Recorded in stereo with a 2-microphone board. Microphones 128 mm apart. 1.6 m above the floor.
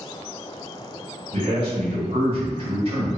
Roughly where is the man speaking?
Right.